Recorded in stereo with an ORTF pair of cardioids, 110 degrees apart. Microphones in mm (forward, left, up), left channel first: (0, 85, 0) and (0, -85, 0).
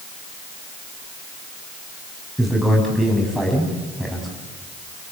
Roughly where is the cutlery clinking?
No cutlery clinking in this recording.